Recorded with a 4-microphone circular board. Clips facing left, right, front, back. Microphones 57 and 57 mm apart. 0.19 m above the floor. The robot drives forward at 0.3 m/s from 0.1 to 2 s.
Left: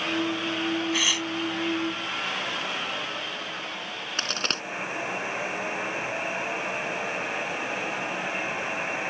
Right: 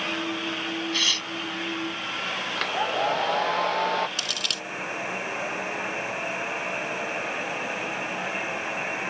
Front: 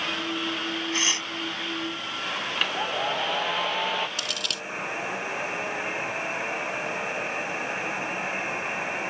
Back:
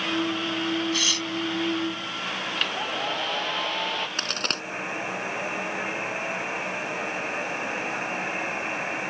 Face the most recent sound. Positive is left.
turn(degrees=135)